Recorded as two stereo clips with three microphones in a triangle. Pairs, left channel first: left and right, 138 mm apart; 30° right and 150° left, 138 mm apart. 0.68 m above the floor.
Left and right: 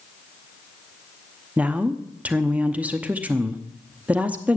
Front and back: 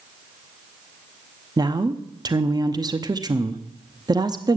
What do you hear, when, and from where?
1.6 s a woman speaking: 165° right, 0.8 m